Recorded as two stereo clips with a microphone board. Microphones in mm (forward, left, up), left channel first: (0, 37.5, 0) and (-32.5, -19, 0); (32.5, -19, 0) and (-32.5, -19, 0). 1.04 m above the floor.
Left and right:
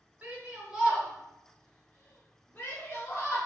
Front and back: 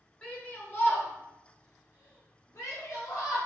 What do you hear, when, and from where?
0.2 s a shout: 65° right, 1.1 m; by 3.4 s 20° left, 1.6 m